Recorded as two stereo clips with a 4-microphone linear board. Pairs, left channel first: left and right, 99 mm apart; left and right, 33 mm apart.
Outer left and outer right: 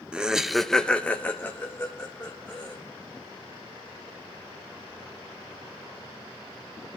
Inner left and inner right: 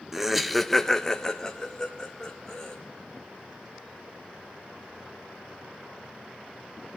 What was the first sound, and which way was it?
Laughter, 10° right (ahead or behind).